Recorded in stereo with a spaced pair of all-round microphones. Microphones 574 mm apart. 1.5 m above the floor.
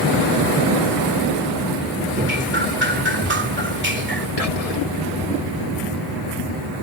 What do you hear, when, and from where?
2.1 s dripping: 20° right (ahead or behind)
4.4 s whispering: 85° left